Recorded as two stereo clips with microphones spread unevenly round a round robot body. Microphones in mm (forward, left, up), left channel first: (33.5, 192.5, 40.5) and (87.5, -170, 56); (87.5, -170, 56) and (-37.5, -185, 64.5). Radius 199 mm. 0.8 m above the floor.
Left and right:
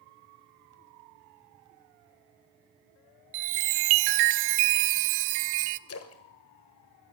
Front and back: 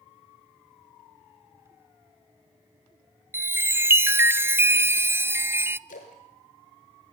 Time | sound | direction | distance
3.3 | a chime | 95° right | 0.7 m
5.9 | a splash | 45° left | 1.6 m